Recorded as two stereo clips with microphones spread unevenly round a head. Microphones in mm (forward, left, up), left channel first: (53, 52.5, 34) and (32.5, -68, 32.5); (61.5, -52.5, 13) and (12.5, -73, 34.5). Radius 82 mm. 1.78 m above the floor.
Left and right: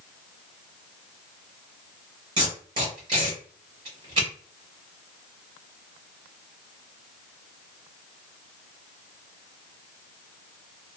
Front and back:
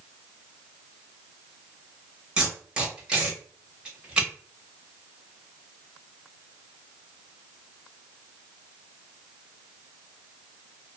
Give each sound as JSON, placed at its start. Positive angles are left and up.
{"t": 2.4, "sound": "tape being pulled", "azimuth_deg": -135, "distance_m": 1.2}